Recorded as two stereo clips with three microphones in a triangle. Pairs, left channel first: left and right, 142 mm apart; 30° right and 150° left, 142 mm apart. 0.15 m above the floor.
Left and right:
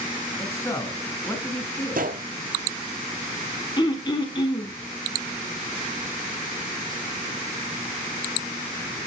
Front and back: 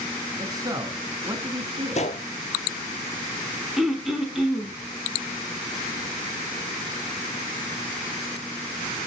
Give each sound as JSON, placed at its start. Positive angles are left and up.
{"t": 0.4, "sound": "a man speaking", "azimuth_deg": 135, "distance_m": 1.3}
{"t": 1.9, "sound": "a gunshot", "azimuth_deg": -70, "distance_m": 0.6}
{"t": 3.8, "sound": "throat clearing", "azimuth_deg": 65, "distance_m": 1.1}